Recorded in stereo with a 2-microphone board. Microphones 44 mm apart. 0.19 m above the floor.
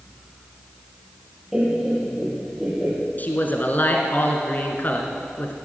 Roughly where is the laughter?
Centre.